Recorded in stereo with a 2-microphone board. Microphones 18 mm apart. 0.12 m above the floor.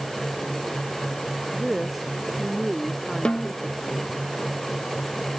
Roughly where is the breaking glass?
I don't hear breaking glass.